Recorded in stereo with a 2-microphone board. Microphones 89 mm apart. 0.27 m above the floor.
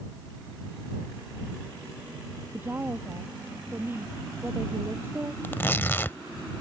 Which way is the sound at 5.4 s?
25° left (ahead or behind).